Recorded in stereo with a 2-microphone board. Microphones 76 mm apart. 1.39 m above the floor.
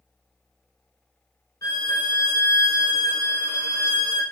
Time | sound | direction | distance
1.6 | a violin | 45° left (ahead or behind) | 0.8 m